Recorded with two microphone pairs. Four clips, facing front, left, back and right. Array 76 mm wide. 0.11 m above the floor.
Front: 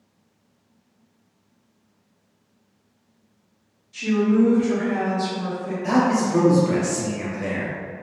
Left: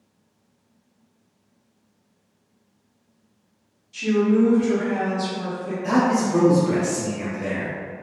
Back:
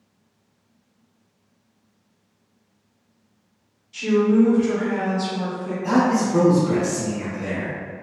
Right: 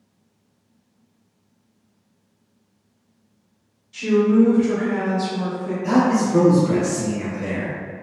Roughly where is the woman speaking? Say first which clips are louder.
Right 3 dB, back 2 dB; right.